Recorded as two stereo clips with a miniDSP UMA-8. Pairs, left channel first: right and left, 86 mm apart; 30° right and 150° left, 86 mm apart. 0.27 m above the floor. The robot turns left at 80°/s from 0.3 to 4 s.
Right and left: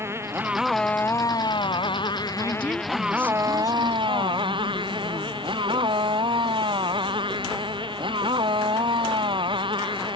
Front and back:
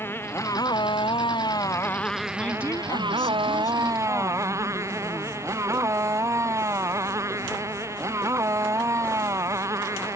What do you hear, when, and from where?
0.0 s a motorcycle: 30° left; by 10.2 s 95° left
2.4 s a woman speaking: 50° left; by 5.5 s 80° right